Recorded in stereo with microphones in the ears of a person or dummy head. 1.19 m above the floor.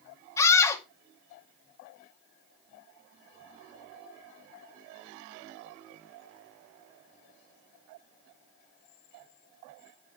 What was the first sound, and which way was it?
A scream, 20° left (ahead or behind).